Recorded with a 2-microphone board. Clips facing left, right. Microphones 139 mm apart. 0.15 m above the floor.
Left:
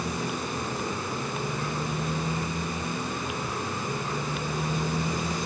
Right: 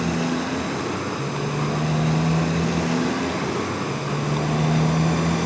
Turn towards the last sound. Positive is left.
turn(degrees=-60)  # may be behind; listen again after turning